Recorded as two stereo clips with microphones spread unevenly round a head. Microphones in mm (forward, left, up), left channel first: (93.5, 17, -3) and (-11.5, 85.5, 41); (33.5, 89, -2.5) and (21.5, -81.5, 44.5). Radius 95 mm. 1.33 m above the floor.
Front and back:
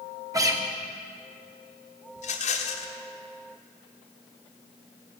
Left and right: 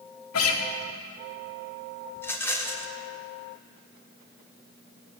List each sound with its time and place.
0.3 s a guitar: 105° left, 1.3 m
2.2 s a rattle: straight ahead, 1.5 m